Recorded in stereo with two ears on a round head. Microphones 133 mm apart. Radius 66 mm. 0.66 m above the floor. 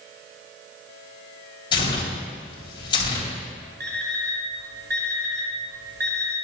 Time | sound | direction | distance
1.7 | tearing paper | 30° left (ahead or behind) | 3 m
3.8 | an alarm clock | 70° right (ahead or behind) | 4 m